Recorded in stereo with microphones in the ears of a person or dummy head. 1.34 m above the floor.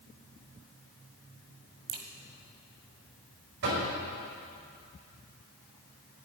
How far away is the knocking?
About 5 m.